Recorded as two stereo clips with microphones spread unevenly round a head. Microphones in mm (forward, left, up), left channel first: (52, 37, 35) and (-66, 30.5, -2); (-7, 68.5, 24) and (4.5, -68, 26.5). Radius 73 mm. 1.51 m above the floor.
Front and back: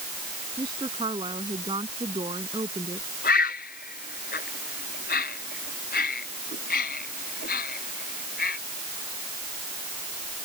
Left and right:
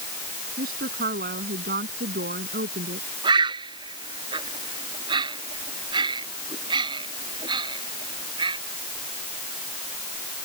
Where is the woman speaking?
110° right.